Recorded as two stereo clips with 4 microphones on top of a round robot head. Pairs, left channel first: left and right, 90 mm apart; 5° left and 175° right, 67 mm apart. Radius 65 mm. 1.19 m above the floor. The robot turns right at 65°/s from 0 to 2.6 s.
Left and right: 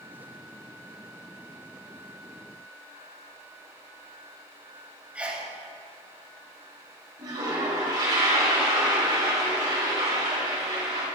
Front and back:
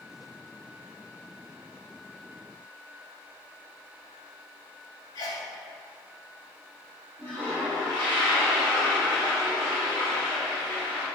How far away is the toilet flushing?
About 3 m.